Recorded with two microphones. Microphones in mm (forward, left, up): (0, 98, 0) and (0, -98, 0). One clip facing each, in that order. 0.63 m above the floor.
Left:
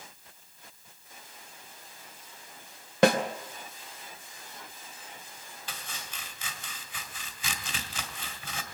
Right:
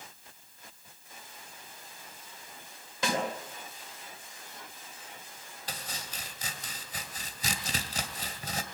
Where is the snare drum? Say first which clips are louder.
Left 10 dB; 70° left (ahead or behind), 2.5 m.